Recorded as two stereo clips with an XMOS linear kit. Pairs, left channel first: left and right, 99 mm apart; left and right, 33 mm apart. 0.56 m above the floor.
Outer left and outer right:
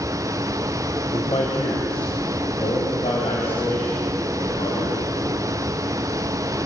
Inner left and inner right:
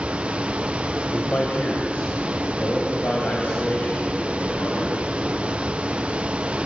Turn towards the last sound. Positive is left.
turn(degrees=75)  # may be behind; listen again after turning